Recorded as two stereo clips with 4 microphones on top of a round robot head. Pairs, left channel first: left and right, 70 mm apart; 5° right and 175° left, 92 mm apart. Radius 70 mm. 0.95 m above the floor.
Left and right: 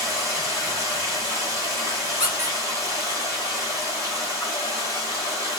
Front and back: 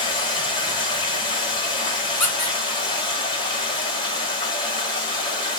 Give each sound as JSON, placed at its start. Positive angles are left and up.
{"t": 0.0, "sound": "running water", "azimuth_deg": 35, "distance_m": 1.9}
{"t": 2.2, "sound": "a squeak", "azimuth_deg": 65, "distance_m": 2.5}